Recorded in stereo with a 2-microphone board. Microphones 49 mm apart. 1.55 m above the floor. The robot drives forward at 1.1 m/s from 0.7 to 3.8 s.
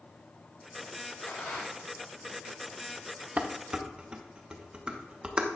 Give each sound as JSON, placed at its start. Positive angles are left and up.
{"t": 1.2, "sound": "a rattle", "side_deg": 55, "distance_m": 3.0}
{"t": 3.4, "sound": "dishes clattering", "side_deg": -35, "distance_m": 0.7}